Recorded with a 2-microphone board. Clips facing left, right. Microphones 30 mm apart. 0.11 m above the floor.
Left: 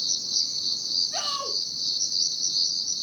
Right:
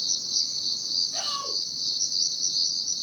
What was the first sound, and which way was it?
An insect, 10° left (ahead or behind).